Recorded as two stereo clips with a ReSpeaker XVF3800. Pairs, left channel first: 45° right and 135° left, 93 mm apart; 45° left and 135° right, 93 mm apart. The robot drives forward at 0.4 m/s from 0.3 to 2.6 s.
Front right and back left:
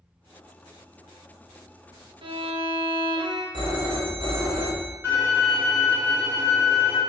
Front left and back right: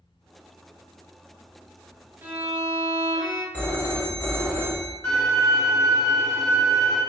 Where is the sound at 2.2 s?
155° left, 1.1 m; by 3.4 s 160° left, 1.2 m.